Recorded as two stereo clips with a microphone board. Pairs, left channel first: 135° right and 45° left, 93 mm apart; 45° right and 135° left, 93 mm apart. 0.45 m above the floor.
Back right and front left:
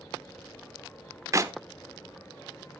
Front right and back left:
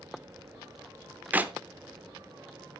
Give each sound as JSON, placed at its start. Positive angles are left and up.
{"t": 1.3, "sound": "a clap", "azimuth_deg": 75, "distance_m": 0.7}